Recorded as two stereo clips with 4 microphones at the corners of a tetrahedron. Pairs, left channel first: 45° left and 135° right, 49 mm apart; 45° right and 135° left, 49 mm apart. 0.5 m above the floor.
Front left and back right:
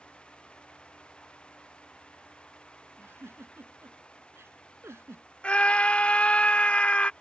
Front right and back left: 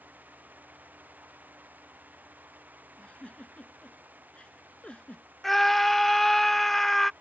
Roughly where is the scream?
Ahead left.